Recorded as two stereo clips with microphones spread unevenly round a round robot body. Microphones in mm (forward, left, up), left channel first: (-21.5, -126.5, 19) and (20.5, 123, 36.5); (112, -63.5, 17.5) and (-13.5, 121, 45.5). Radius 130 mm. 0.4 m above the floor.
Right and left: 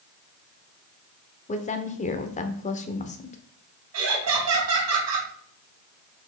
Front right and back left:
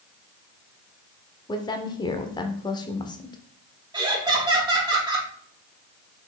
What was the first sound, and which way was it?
A woman speaking, 95° right.